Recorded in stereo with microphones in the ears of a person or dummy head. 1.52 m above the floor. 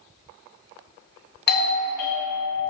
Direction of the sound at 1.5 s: 45° left (ahead or behind).